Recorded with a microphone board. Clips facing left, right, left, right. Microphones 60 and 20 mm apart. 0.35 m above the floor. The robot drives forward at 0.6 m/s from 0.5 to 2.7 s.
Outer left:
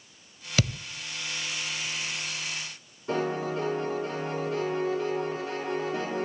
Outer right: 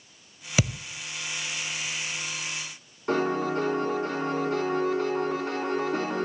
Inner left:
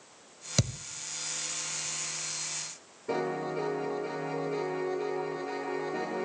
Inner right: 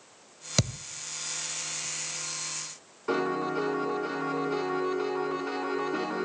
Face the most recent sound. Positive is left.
turn(degrees=-70)  # may be behind; listen again after turning